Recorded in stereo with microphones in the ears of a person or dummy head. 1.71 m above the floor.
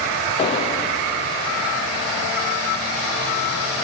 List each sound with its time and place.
0.4 s an explosion: 30° left (ahead or behind), 0.7 m